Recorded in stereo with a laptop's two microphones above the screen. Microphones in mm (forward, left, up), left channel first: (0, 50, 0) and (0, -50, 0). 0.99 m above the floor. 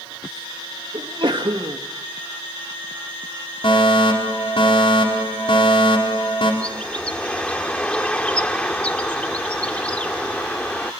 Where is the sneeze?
55° right (ahead or behind), 1.8 m.